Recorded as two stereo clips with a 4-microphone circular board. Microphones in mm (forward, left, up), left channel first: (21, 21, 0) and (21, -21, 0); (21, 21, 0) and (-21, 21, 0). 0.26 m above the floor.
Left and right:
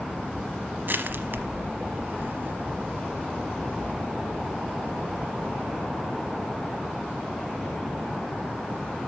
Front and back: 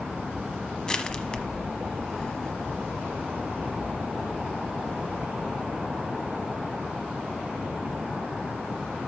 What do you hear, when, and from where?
0.9 s crushing: 65° right, 0.9 m